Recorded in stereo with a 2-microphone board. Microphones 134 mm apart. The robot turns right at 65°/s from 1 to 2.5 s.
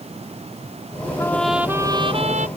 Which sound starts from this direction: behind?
A trumpet, at 1.2 s.